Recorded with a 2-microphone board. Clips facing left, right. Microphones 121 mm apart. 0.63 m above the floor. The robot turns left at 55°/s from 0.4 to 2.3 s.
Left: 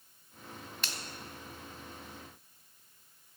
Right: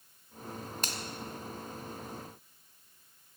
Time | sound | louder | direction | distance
0.8 | a finger snap | right 2 dB | 40° right (ahead or behind) | 1.0 m